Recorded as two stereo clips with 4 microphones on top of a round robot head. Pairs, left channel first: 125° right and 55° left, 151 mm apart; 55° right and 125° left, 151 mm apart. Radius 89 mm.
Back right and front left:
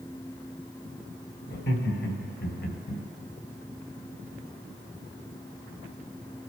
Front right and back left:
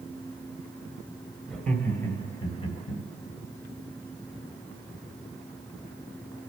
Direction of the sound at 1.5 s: 140° right.